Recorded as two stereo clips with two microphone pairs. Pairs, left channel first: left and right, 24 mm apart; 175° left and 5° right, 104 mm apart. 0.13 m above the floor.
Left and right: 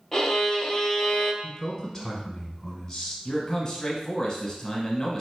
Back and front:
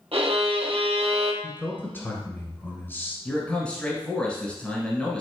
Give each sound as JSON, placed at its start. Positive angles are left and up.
{"t": 0.1, "sound": "a violin", "azimuth_deg": 15, "distance_m": 1.0}
{"t": 1.4, "sound": "a man speaking", "azimuth_deg": 160, "distance_m": 1.0}
{"t": 3.2, "sound": "a man speaking", "azimuth_deg": 115, "distance_m": 1.1}